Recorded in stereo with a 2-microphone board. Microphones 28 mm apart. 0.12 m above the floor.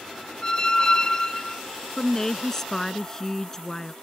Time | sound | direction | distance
0.4 | a squeak | 25° left (ahead or behind) | ?
2.0 | a woman speaking | 15° left (ahead or behind) | ?